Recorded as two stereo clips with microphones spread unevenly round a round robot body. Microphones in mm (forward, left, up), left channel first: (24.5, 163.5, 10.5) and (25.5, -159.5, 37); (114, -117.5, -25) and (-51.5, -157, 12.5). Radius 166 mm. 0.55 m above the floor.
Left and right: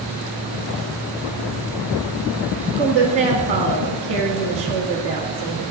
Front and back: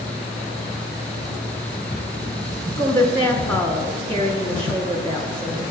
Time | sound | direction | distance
2.8 | a woman speaking | 35° right | 1.0 m